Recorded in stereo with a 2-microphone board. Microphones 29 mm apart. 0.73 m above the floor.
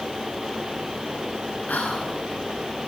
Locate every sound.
1.7 s whispering: 70° left (ahead or behind), 8 m